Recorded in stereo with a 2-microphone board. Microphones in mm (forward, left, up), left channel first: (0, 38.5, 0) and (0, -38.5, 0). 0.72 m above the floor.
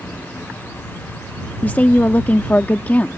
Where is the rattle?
No rattle in this recording.